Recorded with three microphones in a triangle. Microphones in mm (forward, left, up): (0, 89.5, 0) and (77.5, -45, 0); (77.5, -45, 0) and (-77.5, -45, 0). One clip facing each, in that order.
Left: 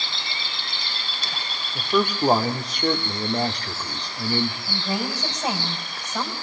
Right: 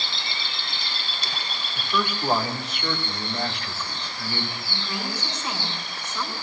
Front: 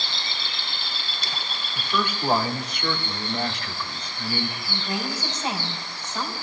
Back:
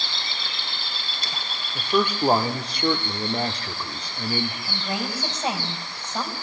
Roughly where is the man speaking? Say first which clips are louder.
Left 6 dB, back 5 dB; behind left.